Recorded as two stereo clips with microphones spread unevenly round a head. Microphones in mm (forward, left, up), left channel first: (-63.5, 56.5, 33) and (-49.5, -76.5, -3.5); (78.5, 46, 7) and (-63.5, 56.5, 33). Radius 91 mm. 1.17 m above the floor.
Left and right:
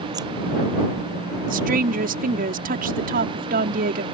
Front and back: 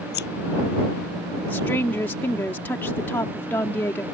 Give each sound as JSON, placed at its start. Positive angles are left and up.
{"t": 0.1, "sound": "scissors", "azimuth_deg": -10}
{"t": 1.5, "sound": "a woman speaking", "azimuth_deg": -85}